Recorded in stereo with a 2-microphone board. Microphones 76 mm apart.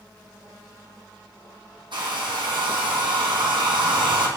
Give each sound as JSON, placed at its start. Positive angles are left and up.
{"t": 1.9, "sound": "a hair dryer", "side_deg": -75, "distance_m": 3.5}